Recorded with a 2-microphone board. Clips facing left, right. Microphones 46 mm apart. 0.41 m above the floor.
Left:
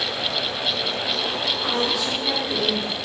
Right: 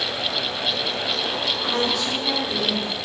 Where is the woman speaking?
5° left (ahead or behind), 1.3 m.